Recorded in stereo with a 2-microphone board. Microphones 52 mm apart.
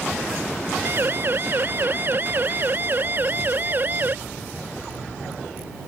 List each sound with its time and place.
0.8 s a siren: 45° right (ahead or behind); by 4.2 s 40° right (ahead or behind)